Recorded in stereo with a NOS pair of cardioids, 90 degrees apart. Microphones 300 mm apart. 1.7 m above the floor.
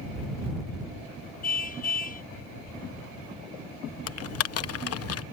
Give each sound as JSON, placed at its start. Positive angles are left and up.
{"t": 1.4, "sound": "a car horn", "azimuth_deg": 30}
{"t": 4.1, "sound": "typing on a keyboard", "azimuth_deg": 55}